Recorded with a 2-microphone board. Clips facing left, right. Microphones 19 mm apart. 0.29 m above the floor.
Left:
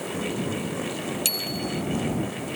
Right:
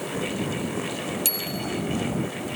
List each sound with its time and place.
1.2 s a bicycle bell: 15° left (ahead or behind)